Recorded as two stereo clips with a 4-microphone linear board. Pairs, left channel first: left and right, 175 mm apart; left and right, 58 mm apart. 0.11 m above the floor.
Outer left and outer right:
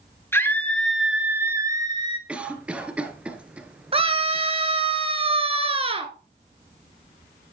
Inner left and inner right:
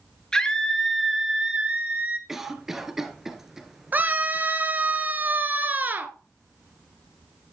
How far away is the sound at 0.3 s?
About 2.0 m.